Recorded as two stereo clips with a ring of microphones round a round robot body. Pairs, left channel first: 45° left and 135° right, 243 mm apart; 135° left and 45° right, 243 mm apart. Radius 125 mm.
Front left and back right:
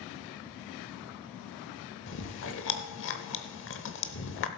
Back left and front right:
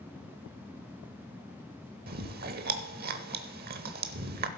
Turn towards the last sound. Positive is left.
turn(degrees=5)